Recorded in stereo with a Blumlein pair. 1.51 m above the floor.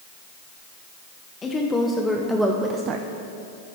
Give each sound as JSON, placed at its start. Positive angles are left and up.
{"t": 1.4, "sound": "a woman speaking", "azimuth_deg": 15, "distance_m": 1.1}